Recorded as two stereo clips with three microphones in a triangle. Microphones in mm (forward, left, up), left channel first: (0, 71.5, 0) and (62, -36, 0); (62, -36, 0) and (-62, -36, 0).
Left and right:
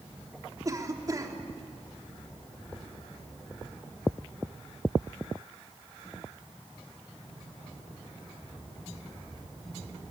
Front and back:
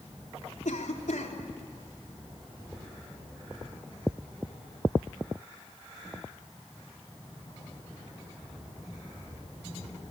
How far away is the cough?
About 3.5 m.